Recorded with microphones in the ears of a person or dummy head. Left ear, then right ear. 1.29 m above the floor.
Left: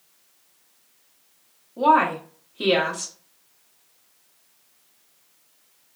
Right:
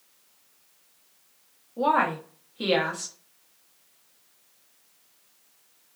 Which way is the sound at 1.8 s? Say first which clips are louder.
Left 5 dB; 5° right (ahead or behind).